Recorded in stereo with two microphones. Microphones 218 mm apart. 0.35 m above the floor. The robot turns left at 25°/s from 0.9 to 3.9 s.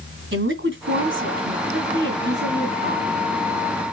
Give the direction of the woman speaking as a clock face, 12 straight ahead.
3 o'clock.